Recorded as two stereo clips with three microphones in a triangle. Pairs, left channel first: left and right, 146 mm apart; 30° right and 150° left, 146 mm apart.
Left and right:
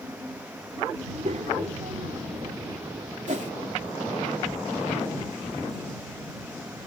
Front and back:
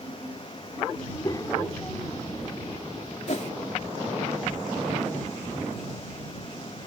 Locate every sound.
1.0 s a child speaking: 80° right; by 3.2 s 140° right
3.3 s a whoosh: 65° right